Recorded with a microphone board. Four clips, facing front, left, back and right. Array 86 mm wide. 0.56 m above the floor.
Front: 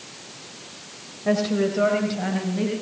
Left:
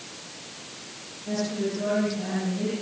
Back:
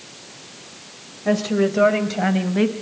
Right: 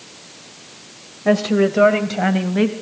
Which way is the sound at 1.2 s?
95° right.